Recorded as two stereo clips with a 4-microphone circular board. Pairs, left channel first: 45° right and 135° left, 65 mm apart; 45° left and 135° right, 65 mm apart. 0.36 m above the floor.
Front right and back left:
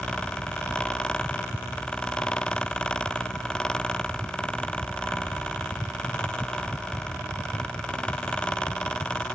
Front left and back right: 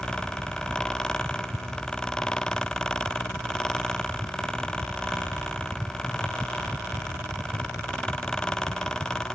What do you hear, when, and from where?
Only background noise.